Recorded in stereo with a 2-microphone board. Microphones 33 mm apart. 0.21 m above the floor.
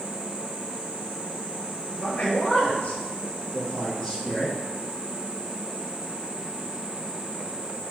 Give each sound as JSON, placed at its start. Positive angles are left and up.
{"t": 2.0, "sound": "a man speaking", "side_deg": 40, "distance_m": 4.5}